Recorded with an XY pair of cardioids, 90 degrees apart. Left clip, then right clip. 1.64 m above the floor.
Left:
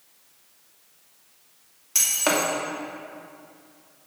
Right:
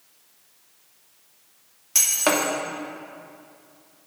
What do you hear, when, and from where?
1.9 s breaking glass: 15° right, 2.5 m